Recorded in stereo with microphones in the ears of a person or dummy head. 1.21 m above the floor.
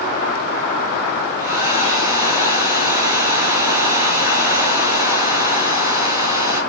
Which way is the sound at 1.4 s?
15° right (ahead or behind).